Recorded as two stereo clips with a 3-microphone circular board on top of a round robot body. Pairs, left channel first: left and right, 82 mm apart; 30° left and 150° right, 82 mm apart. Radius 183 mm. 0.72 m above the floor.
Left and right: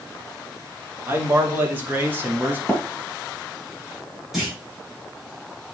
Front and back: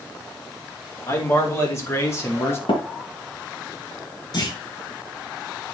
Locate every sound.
1.1 s a man speaking: 25° right, 3.5 m; by 2.6 s 30° right, 2.5 m
2.7 s tapping: 10° left, 3 m
4.3 s a clunk: 5° right, 5 m